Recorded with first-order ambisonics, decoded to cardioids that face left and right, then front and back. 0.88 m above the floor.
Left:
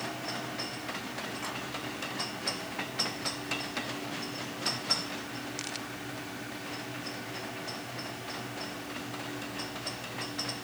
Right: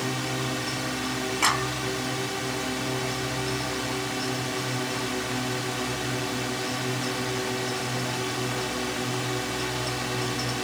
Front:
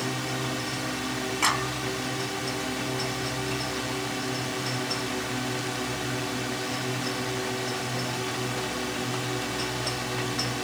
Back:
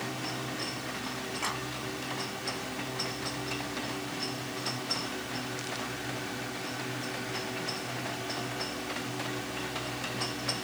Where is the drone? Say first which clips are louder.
Right 7 dB, front 5 dB; 60° right.